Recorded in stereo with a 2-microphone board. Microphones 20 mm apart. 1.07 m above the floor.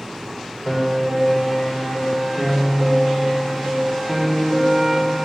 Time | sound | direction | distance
0.7 | a piano | 10° right (ahead or behind) | 2.5 m